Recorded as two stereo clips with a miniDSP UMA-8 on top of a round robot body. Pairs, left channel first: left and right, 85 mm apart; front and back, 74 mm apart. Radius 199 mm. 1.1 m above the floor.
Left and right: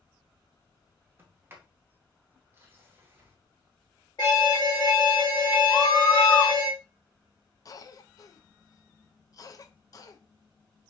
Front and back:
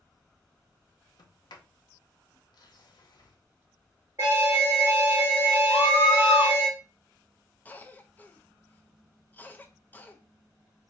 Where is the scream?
25° left, 0.5 m.